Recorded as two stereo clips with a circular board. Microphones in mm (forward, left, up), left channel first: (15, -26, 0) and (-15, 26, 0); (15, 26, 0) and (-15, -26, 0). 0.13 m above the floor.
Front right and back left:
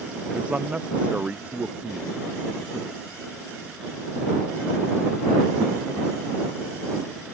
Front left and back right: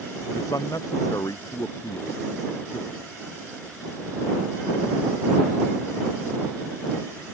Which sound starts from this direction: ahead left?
A man speaking, at 0.3 s.